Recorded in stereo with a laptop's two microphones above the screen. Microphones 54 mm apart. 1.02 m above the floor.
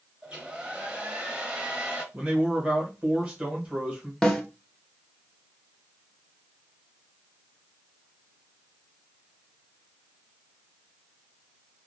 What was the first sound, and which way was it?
A hair dryer, 20° right (ahead or behind).